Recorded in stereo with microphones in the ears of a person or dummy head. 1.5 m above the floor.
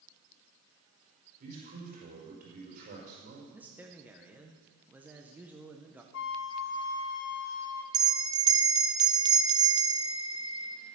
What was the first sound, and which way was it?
A man speaking, 50° right (ahead or behind).